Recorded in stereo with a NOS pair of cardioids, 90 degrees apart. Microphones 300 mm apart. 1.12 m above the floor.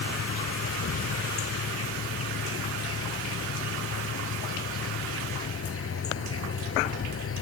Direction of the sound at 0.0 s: 50° left.